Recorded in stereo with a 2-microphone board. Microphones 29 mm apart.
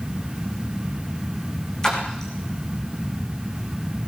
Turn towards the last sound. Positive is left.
turn(degrees=20)  # may be behind; listen again after turning